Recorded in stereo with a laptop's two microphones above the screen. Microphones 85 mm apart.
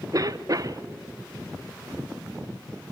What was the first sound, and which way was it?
A cough, 45° right (ahead or behind).